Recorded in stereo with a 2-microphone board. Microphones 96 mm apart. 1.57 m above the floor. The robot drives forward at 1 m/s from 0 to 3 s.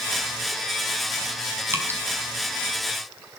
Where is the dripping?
25° right (ahead or behind), 4.5 m.